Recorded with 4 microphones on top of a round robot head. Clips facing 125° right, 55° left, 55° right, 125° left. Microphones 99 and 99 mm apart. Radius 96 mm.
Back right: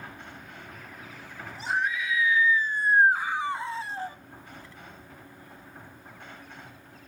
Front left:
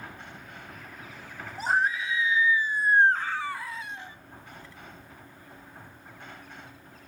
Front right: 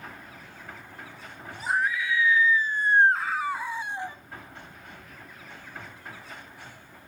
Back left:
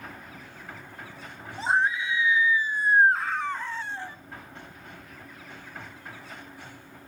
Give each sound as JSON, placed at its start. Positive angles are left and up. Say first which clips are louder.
{"t": 1.6, "sound": "a scream", "louder": "front left 3 dB, back left 2 dB", "azimuth_deg": 75, "distance_m": 1.1}